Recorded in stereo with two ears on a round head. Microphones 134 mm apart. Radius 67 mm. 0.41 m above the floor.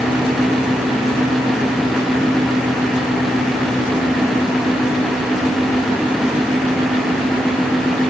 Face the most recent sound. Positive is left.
No sound to turn to.